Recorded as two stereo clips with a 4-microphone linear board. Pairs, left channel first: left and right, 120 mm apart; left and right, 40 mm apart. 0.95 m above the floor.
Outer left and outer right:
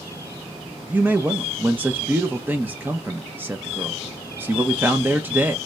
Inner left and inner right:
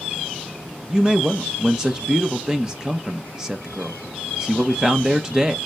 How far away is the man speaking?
About 0.9 m.